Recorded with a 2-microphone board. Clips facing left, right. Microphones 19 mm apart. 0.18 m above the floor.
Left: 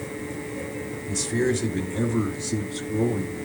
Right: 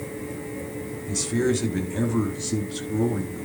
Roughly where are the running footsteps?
I don't hear running footsteps.